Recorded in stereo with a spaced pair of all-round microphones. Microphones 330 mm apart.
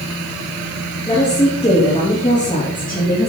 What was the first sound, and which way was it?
A woman speaking, 15° left (ahead or behind).